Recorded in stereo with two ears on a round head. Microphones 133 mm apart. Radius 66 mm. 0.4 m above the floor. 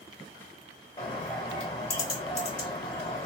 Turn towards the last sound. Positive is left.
turn(degrees=40)  # may be behind; listen again after turning